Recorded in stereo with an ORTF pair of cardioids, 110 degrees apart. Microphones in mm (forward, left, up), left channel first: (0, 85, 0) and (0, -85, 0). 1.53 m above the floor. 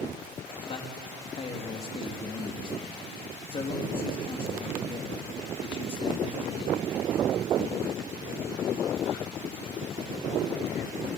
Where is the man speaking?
35° left, 3 m.